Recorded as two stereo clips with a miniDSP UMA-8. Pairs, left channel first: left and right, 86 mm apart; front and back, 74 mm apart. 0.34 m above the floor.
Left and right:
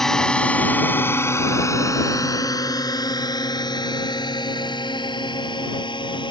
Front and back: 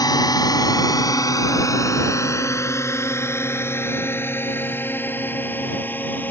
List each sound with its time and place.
0.0 s a drone: 5° left; by 6.3 s 65° left